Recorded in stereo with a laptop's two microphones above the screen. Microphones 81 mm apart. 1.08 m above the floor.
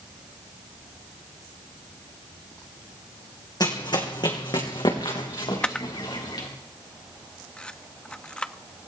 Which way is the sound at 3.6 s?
60° left (ahead or behind).